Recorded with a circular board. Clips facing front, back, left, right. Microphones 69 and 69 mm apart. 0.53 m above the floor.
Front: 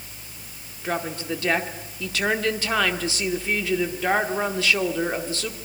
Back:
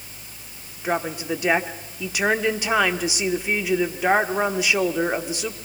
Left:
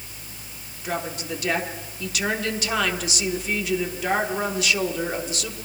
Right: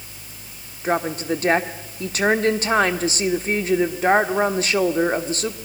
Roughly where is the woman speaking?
Behind right.